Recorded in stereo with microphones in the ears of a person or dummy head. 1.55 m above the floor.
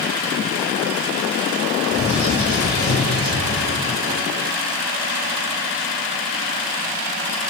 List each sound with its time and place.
1.9 s a bird: 15° left (ahead or behind), 1.3 m